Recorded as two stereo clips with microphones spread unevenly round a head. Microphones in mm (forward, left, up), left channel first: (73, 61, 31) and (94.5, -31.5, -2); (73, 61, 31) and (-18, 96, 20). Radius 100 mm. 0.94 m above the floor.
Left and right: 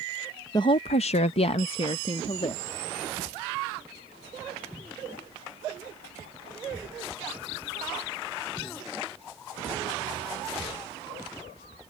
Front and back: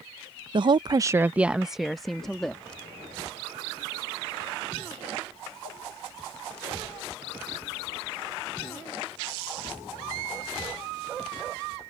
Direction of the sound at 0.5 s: 170° left.